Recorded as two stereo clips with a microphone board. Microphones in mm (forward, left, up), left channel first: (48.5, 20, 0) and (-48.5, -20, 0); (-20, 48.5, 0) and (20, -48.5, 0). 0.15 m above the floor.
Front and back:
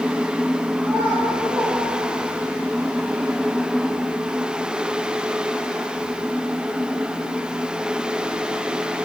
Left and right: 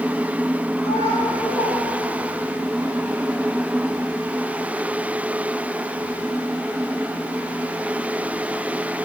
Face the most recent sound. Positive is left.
turn(degrees=135)